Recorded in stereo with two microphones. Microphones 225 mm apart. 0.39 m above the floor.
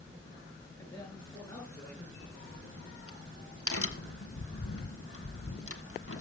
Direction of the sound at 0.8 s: 15° left (ahead or behind).